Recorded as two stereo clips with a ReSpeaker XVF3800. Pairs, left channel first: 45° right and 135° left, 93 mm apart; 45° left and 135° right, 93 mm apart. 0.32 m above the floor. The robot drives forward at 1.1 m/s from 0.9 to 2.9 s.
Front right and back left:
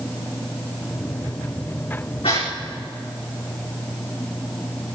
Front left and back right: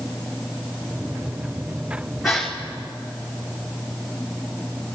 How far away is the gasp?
About 5 m.